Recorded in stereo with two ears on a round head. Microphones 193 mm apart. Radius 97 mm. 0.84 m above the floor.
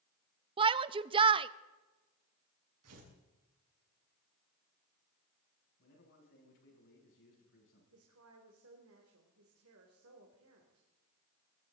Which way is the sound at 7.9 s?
70° right (ahead or behind).